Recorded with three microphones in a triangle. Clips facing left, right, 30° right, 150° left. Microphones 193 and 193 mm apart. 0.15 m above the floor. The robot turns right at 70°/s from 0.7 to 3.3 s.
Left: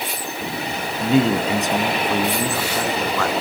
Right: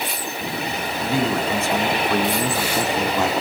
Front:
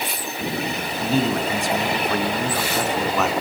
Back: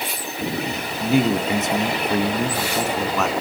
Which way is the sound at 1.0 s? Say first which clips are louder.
Left 5 dB, back 3 dB; 85° left.